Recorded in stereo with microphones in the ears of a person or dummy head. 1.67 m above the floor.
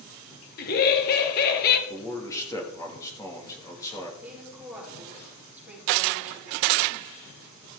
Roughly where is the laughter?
Left.